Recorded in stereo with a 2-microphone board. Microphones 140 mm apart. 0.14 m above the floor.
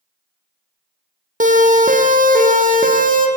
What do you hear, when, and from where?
1.4 s a siren: 70° right (ahead or behind), 4 m; by 3.3 s 75° right (ahead or behind), 5 m